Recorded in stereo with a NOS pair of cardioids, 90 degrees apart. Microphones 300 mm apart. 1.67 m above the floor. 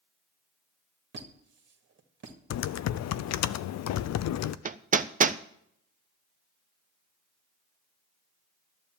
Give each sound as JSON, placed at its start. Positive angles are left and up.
{"t": 1.1, "sound": "a squeak", "azimuth_deg": -40, "distance_m": 1.9}
{"t": 2.5, "sound": "typing on a keyboard", "azimuth_deg": 60, "distance_m": 0.6}
{"t": 4.7, "sound": "hammering", "azimuth_deg": -25, "distance_m": 0.6}